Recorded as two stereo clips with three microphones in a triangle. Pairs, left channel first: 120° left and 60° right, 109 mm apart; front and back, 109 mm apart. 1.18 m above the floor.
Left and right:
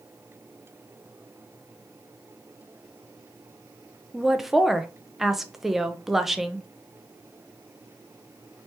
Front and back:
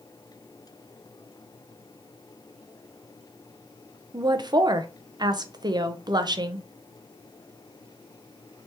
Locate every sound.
4.1 s a woman speaking: 145° right, 0.5 m